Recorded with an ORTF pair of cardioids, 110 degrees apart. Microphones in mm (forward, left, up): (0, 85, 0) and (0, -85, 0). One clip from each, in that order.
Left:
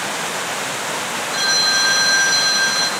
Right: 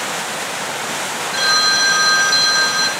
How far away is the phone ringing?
About 0.5 m.